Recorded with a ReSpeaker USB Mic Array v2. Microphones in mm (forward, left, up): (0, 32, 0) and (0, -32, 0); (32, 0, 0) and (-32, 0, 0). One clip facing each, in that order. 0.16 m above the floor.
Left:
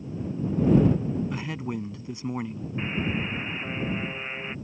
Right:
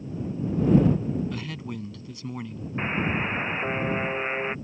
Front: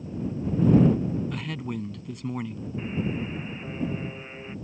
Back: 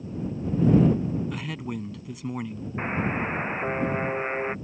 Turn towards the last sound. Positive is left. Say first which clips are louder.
# right 3 dB, back 3 dB
turn(degrees=-150)